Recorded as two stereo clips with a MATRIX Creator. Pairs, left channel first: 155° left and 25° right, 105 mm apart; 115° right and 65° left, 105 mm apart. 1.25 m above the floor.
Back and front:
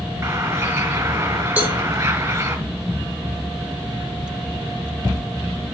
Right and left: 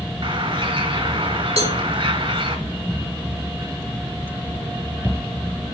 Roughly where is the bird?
Ahead left.